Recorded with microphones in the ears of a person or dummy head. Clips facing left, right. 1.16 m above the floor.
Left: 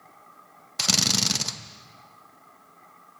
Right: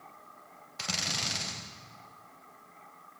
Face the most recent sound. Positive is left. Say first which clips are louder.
# left 10 dB
turn(degrees=70)  # may be behind; listen again after turning